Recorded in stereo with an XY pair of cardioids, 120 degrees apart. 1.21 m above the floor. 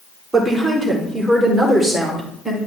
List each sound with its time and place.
0.3 s a woman speaking: 15° right, 4 m; by 2.6 s straight ahead, 4.5 m